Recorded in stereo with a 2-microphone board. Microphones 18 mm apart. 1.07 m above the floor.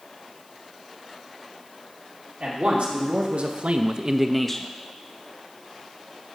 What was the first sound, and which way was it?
A man speaking, 75° right (ahead or behind).